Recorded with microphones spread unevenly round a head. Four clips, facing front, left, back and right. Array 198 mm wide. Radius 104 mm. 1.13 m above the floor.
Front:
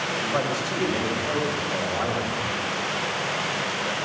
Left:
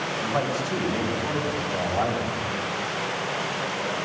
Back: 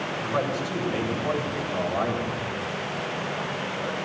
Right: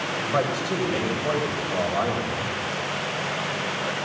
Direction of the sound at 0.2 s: 95° right.